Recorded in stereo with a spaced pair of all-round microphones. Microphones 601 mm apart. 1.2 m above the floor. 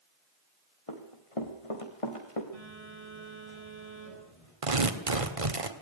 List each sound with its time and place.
0.9 s running footsteps: 65° left (ahead or behind), 3 m
2.5 s a phone buzzing: 80° left, 9 m
4.6 s tearing paper: 70° right (ahead or behind), 1.8 m